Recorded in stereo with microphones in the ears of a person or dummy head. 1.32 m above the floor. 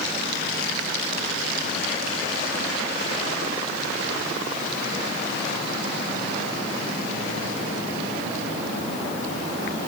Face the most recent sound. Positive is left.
No sound to turn to.